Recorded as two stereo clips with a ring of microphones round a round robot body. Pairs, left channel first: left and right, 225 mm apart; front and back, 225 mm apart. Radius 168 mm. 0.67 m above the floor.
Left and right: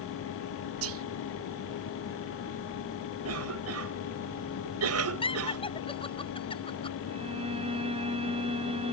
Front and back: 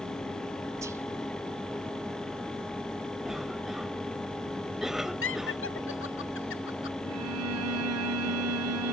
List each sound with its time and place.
0.8 s whispering: 100° right
3.2 s a cough: 90° right
5.2 s laughter: 25° left
7.1 s a violin: 160° right